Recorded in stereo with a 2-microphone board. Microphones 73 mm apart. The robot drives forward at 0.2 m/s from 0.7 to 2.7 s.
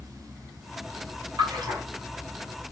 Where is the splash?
80° right, 2.5 m.